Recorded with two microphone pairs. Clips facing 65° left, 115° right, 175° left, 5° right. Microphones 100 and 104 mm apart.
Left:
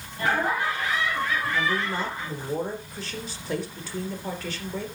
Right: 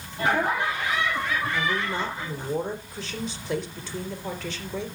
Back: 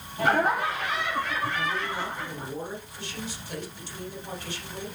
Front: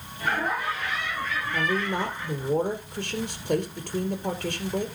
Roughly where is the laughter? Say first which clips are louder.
Right 1 dB, back 5 dB; behind.